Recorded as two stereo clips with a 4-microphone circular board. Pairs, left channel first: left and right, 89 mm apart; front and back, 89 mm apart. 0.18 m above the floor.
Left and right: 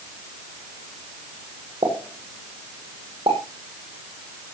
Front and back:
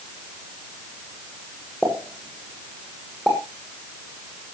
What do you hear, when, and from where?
1.8 s a pop: 90° right, 7 m